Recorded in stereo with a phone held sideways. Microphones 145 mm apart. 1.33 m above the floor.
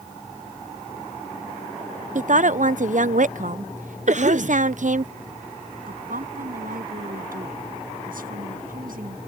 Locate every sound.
2.1 s a woman speaking: 60° right (ahead or behind)
4.1 s a cough: 55° right (ahead or behind)
5.9 s a woman speaking: 75° right (ahead or behind)